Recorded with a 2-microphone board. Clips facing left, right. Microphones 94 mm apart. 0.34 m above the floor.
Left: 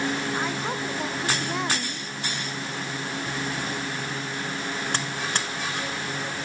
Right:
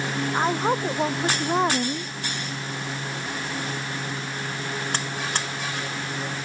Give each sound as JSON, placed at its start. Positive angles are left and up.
{"t": 0.3, "sound": "a woman speaking", "side_deg": -35}